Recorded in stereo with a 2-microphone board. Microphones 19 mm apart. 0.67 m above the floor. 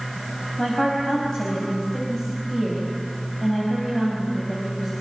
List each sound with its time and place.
0.6 s a woman speaking: 40° left (ahead or behind), 5 m